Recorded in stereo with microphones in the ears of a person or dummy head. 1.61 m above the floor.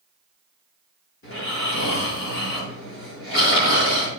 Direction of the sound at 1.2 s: 65° left (ahead or behind).